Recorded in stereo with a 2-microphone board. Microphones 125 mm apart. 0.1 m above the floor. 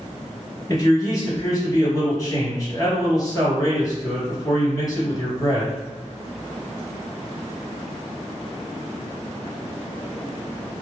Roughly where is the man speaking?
Left.